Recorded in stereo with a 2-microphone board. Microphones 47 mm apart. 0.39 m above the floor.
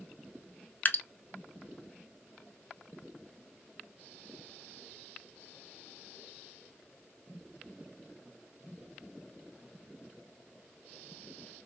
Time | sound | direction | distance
0.8 | dripping | 40° left (ahead or behind) | 0.6 m